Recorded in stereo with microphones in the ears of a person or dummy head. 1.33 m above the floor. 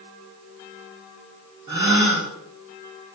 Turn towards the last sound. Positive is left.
turn(degrees=-25)  # may be behind; listen again after turning